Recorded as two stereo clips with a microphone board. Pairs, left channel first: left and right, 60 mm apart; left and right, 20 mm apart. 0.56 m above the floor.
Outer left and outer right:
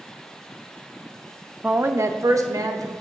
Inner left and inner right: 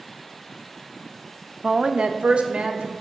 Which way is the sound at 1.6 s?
20° right (ahead or behind).